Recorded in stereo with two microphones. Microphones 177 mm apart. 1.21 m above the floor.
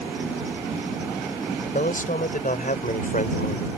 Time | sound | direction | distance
1.7 | a man speaking | 50° left (ahead or behind) | ?